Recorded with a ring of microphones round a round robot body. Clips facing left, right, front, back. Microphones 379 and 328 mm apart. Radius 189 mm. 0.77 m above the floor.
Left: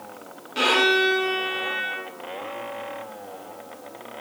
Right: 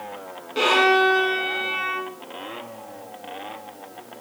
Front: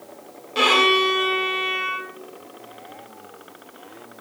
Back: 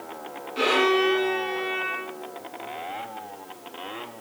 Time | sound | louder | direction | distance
0.6 | a violin | right 2 dB, even | straight ahead | 1.4 m